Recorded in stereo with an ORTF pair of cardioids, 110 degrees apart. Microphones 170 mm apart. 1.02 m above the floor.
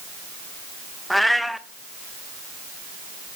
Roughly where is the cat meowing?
Ahead.